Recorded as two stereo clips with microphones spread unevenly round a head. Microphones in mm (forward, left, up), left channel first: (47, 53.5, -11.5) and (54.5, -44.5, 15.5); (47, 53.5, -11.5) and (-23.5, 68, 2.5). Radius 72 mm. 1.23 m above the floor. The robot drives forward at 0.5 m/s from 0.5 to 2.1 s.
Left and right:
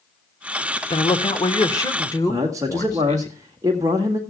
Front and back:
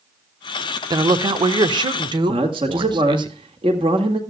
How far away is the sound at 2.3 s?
About 1.8 m.